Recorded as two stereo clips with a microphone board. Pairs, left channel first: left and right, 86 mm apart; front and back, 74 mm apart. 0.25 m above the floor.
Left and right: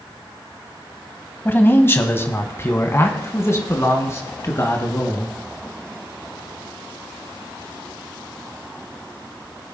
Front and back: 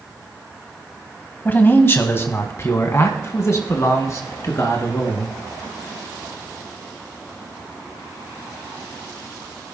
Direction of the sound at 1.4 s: 45° left.